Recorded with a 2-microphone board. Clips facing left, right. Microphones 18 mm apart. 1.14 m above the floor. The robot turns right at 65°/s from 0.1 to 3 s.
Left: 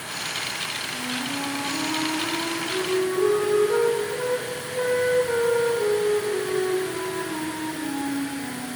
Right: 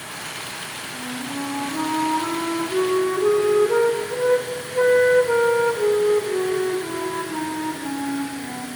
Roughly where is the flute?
Behind.